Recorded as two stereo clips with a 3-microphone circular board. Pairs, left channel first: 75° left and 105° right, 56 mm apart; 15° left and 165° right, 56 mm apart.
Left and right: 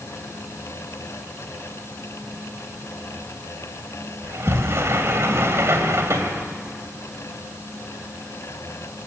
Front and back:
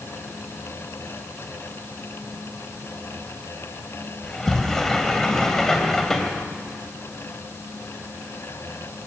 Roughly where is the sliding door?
Ahead right.